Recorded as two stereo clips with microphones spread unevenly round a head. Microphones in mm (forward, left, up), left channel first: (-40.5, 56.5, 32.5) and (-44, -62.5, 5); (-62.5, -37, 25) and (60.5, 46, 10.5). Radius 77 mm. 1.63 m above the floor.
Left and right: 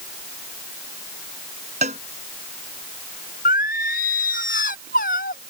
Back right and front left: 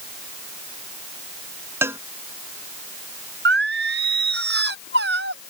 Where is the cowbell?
40° right.